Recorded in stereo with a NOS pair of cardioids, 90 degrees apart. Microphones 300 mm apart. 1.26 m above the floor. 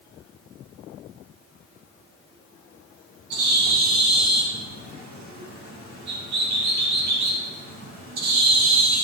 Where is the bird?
65° right, 1.8 m.